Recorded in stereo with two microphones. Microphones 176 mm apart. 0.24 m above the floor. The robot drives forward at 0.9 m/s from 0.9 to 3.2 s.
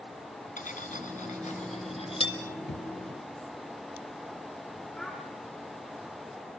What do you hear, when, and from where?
0.6 s cutlery clinking: 50° left (ahead or behind), 1.6 m; by 2.4 s 30° left (ahead or behind), 2.5 m
2.7 s a thud: 80° left, 1.8 m; by 2.9 s 75° left (ahead or behind), 1.8 m
5.0 s a child speaking: 5° left (ahead or behind), 2.5 m